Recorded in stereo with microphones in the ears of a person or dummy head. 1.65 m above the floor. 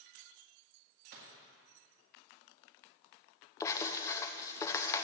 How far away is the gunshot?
About 1.7 m.